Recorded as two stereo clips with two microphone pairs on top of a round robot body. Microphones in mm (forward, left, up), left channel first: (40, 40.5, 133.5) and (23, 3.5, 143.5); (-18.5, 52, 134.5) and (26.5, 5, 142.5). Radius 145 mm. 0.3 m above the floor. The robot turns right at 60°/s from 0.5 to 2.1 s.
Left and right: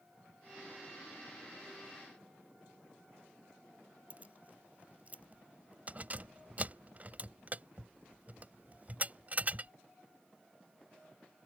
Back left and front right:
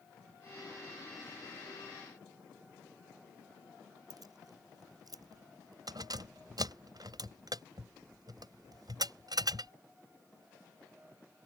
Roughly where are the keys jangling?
Ahead right.